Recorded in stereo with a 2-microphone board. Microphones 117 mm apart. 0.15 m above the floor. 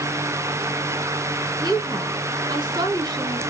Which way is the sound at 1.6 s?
35° right (ahead or behind).